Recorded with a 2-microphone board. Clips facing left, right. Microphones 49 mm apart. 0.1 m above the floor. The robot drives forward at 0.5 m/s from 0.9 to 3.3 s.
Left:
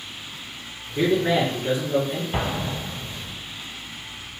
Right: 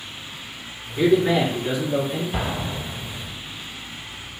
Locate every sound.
0.9 s a man speaking: 30° left (ahead or behind), 1.6 m
2.3 s an explosion: 20° left (ahead or behind), 0.6 m; by 3.3 s 10° left (ahead or behind), 1.1 m